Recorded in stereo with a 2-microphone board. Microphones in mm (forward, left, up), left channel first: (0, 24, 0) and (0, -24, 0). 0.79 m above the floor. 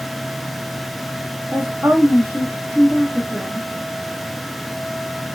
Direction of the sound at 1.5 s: 50° right (ahead or behind).